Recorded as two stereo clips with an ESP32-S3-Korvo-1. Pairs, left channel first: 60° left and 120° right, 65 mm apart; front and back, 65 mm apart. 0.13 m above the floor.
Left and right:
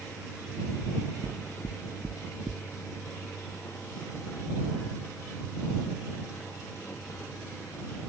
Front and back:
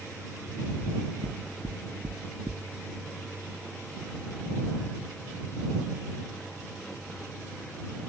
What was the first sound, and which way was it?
Knocking, 155° left.